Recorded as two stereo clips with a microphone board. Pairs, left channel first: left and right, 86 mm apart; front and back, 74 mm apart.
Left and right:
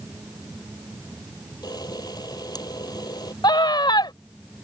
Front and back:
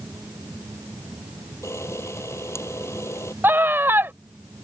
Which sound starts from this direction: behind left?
A scream, at 3.4 s.